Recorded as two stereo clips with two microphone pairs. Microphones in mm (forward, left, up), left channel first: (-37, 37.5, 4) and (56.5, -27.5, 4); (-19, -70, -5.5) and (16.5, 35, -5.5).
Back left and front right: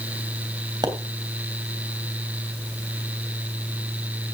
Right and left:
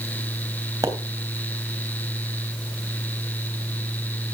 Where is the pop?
15° left, 3 m.